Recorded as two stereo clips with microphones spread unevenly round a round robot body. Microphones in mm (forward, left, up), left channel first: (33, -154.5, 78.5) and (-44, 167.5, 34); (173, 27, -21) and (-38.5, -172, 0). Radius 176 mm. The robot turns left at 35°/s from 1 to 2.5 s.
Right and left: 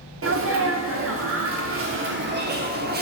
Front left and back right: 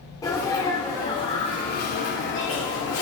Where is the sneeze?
115° left, 1.1 m; by 3.0 s 65° left, 1.1 m.